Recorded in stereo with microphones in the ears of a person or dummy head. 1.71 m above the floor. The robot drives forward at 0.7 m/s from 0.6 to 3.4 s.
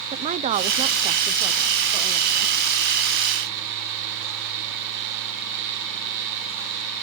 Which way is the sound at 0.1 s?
40° right (ahead or behind).